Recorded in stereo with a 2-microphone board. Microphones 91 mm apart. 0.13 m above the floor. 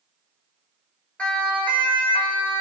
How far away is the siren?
About 6 m.